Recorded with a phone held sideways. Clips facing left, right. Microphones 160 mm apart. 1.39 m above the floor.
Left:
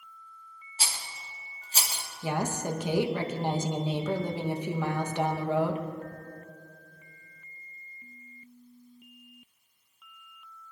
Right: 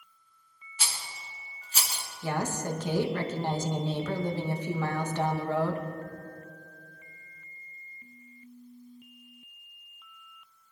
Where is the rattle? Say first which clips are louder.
Left 1 dB; 35° left (ahead or behind), 1.5 m.